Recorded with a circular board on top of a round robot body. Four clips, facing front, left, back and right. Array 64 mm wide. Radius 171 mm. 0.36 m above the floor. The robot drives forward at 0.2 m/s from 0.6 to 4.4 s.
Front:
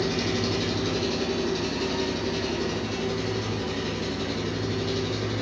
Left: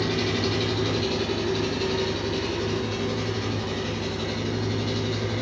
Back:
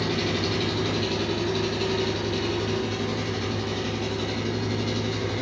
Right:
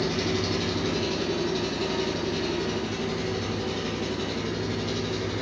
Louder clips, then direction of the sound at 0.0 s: Left 1 dB, even; 145° left.